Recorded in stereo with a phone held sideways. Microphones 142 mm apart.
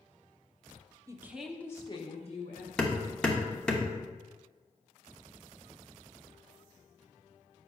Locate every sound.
1.1 s a woman speaking: 25° right (ahead or behind), 0.6 m; by 2.7 s 55° left (ahead or behind), 1.0 m
2.8 s hammering: 5° left (ahead or behind), 0.9 m